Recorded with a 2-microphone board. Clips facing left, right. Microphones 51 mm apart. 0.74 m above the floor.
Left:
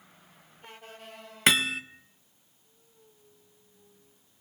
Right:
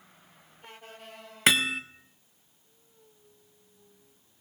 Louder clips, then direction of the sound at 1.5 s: Even; centre (ahead or behind).